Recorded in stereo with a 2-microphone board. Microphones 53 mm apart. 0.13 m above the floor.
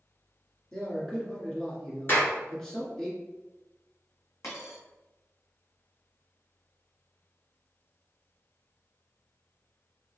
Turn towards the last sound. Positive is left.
turn(degrees=75)  # may be behind; listen again after turning